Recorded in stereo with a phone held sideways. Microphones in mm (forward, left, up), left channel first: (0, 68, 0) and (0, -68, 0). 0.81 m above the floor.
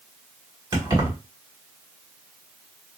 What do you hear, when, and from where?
0.7 s keys jangling: 30° right (ahead or behind), 1.6 m